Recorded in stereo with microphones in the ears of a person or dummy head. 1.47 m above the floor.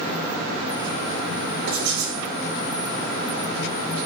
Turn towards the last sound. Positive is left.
turn(degrees=-65)  # may be behind; listen again after turning